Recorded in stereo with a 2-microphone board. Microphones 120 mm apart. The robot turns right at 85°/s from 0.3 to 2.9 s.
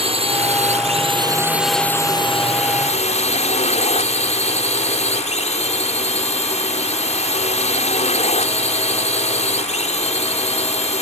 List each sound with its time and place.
0.0 s a drone: 120° right; by 11.0 s 100° left